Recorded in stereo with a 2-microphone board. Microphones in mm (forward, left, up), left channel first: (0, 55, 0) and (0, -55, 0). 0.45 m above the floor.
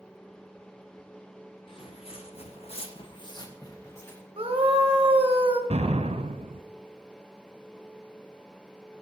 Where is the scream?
55° right (ahead or behind), 1.5 m.